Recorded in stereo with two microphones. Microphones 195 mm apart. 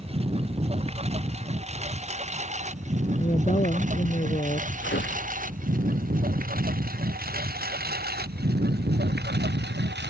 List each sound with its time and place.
0.0 s a lawn mower: 30° right (ahead or behind); by 10.1 s 65° right (ahead or behind)
3.2 s a woman speaking: 40° left (ahead or behind)
4.8 s tearing paper: 70° left (ahead or behind)